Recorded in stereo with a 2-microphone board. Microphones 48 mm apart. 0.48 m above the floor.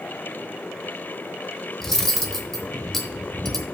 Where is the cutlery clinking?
5° left (ahead or behind), 1.0 m.